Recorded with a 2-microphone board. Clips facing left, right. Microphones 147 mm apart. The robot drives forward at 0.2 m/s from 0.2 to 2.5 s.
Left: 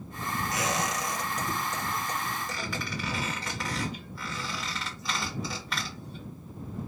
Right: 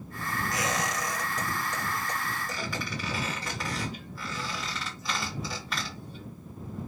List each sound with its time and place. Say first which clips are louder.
0.5 s a squeak: even; centre (ahead or behind), 0.8 m